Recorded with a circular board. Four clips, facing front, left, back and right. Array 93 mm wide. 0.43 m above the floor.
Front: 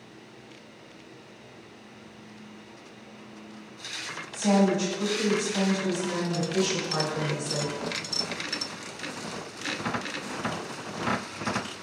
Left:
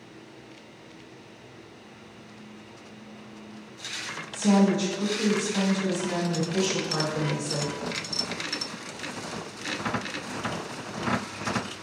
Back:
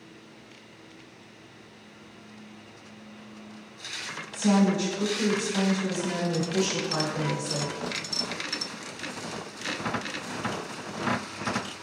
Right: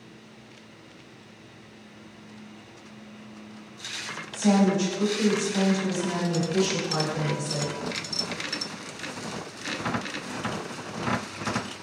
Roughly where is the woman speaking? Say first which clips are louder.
Even, even; ahead right.